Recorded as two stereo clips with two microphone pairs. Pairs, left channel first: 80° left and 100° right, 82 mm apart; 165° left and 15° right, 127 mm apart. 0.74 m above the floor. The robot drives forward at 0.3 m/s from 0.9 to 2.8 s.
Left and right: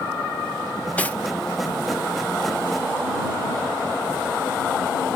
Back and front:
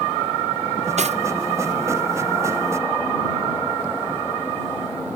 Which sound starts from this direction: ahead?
Cutlery clinking, at 1.0 s.